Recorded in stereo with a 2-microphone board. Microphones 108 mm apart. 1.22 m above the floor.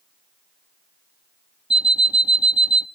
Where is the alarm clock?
70° right (ahead or behind), 1.2 m.